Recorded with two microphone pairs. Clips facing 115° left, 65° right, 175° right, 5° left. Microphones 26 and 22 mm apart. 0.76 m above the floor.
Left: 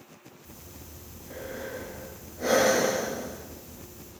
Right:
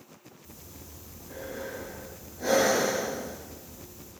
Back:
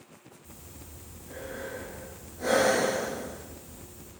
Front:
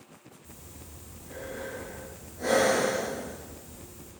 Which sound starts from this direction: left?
Breathing, at 0.4 s.